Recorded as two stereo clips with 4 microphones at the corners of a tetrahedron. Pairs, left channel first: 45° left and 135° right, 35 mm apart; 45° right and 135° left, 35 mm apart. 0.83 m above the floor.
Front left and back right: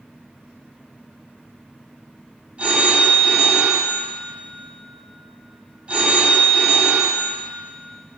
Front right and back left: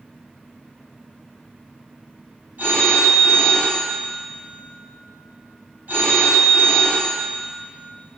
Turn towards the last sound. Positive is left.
turn(degrees=165)